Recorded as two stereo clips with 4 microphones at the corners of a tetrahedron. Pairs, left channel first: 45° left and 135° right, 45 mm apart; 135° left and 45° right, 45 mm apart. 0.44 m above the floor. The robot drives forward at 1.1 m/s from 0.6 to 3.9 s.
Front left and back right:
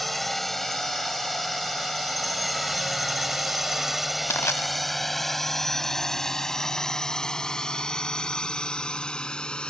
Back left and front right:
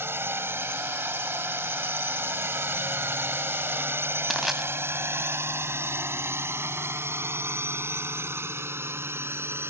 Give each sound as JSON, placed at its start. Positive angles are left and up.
{"t": 0.0, "sound": "a drone", "azimuth_deg": -40}
{"t": 4.3, "sound": "crushing", "azimuth_deg": 40}